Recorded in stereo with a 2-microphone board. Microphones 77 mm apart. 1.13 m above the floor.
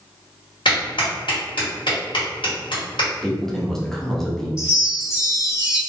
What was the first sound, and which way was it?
A clap, 75° left (ahead or behind).